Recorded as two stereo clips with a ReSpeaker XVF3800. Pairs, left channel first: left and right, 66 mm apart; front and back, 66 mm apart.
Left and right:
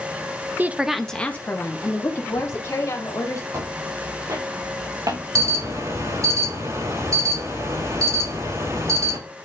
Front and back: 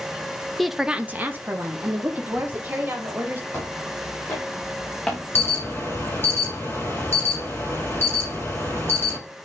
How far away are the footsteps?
About 5 m.